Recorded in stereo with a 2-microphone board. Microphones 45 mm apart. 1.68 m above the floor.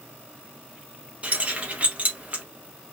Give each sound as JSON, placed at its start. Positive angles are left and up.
{"t": 1.2, "sound": "keys jangling", "side_deg": -30, "distance_m": 1.0}